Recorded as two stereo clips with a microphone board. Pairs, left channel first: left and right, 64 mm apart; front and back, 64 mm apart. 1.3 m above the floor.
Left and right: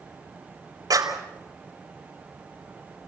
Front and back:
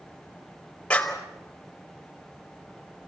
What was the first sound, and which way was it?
A clap, 75° right.